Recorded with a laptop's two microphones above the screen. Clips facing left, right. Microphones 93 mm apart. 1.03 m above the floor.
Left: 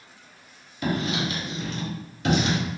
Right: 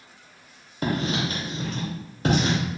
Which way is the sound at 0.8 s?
35° right (ahead or behind).